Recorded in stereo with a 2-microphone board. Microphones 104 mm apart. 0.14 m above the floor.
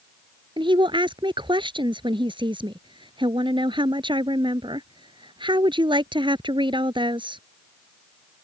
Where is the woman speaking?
50° right (ahead or behind).